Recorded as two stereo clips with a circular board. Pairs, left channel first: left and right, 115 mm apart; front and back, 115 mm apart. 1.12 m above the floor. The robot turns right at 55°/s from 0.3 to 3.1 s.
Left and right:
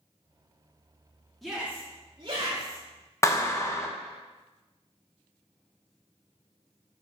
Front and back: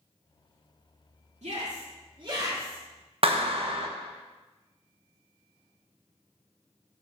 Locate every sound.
1.4 s a shout: straight behind, 2 m; by 2.8 s 105° right, 2 m
3.2 s a clap: 155° left, 1.0 m